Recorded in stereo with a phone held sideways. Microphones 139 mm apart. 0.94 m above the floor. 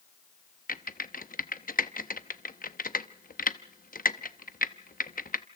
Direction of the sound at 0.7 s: 85° left.